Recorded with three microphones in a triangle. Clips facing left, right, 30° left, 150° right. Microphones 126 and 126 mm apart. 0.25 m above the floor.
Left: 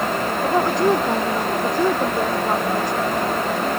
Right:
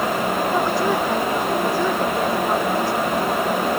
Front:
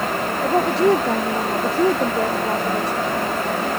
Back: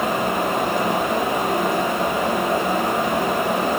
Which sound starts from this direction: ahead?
A woman speaking, at 0.4 s.